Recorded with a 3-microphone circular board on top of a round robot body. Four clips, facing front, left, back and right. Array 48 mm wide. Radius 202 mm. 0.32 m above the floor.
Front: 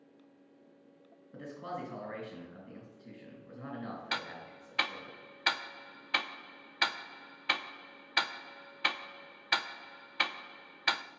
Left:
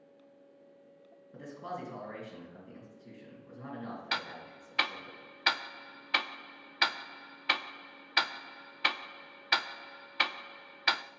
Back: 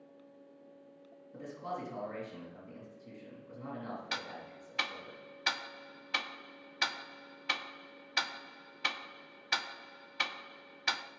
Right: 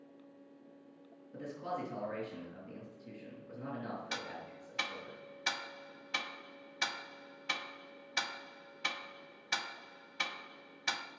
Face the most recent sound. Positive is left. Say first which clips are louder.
# left 5 dB, front 2 dB
turn(degrees=65)